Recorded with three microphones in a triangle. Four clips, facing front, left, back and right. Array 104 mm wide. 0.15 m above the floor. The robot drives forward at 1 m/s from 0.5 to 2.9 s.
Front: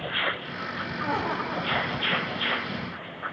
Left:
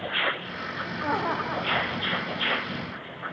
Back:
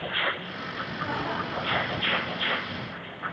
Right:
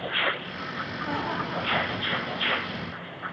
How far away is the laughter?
About 6.5 m.